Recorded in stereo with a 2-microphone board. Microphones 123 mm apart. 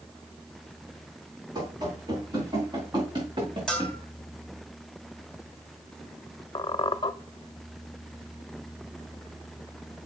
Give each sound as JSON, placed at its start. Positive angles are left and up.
{"t": 1.6, "sound": "running footsteps", "side_deg": -35, "distance_m": 5.0}
{"t": 3.7, "sound": "a bell", "side_deg": 5, "distance_m": 3.0}
{"t": 6.5, "sound": "a squeak", "side_deg": 40, "distance_m": 0.6}